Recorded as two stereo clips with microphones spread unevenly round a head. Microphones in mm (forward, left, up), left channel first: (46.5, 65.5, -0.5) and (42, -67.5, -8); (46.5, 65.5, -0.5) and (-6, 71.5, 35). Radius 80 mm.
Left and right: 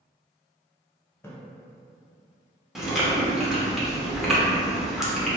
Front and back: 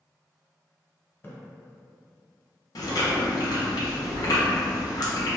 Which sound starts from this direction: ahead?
Chewing, at 2.8 s.